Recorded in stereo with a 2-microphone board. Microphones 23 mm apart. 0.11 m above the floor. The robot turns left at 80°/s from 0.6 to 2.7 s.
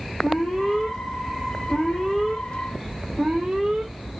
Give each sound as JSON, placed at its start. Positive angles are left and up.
{"t": 0.2, "sound": "an alarm", "azimuth_deg": 140, "distance_m": 6.5}